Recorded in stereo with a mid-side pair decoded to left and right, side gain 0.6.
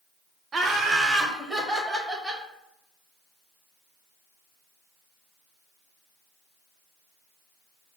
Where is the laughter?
20° right, 0.7 m; by 2.4 s straight ahead, 1.7 m.